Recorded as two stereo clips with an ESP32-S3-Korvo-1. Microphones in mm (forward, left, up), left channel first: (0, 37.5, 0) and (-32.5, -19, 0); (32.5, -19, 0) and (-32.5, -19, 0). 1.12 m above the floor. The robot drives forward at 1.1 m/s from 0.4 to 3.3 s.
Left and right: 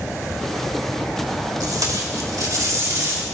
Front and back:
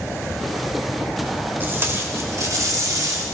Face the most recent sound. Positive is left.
turn(degrees=-155)